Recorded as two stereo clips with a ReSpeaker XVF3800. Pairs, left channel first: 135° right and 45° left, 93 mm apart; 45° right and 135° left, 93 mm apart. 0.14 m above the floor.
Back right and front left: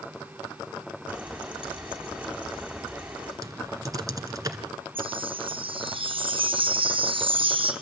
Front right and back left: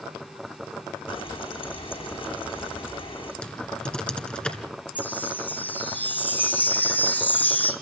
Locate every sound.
1.1 s frying: 35° right, 8.5 m
3.4 s typing on a keyboard: 30° left, 1.9 m
5.0 s a chime: 25° left, 2.5 m